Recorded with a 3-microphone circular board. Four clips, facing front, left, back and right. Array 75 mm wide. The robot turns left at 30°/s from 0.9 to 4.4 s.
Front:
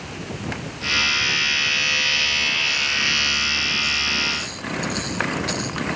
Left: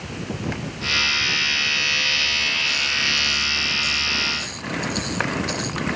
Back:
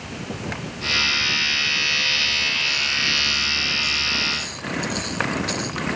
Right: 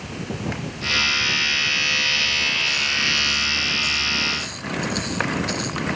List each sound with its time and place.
Only background noise.